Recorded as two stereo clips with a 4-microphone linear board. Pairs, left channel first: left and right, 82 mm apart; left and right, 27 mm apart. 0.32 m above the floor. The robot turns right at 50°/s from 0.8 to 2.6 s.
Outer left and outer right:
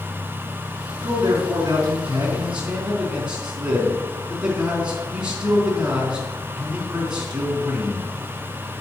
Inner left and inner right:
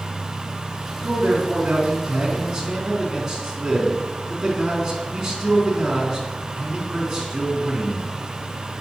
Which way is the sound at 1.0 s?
90° right.